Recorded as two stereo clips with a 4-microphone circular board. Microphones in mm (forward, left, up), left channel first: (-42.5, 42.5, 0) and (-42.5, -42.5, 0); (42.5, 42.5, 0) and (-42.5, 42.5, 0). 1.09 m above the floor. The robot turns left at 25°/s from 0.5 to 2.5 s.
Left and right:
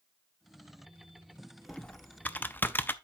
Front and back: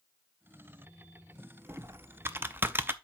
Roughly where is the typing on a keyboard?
Behind left.